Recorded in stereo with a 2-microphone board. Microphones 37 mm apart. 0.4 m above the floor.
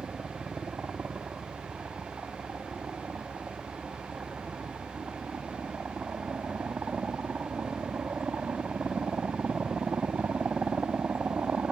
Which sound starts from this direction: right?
A helicopter, at 0.0 s.